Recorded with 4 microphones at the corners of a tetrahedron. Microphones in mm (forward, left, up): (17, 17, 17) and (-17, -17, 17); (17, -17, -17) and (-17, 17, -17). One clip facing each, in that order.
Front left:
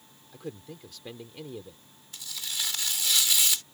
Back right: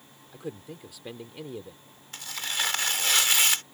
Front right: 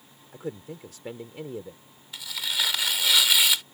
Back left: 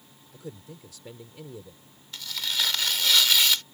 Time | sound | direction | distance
0.3 | a man speaking | 60° right | ?
2.1 | tearing paper | 120° right | ?